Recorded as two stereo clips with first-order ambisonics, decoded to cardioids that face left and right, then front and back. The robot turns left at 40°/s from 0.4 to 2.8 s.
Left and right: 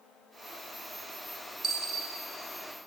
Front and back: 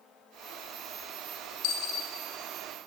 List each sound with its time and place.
1.6 s a dropped coin: 20° right, 0.5 m; by 2.1 s 40° right, 0.5 m